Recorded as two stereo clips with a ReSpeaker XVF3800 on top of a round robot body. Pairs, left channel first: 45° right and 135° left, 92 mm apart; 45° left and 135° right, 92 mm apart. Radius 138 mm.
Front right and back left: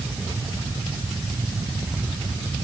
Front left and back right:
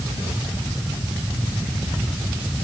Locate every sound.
Only background noise.